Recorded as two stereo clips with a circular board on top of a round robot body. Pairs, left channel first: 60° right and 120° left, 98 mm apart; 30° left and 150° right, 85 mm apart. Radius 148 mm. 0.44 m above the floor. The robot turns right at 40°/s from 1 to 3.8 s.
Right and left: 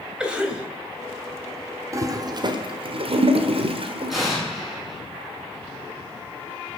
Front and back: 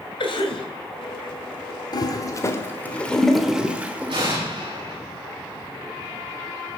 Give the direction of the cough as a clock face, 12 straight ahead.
11 o'clock.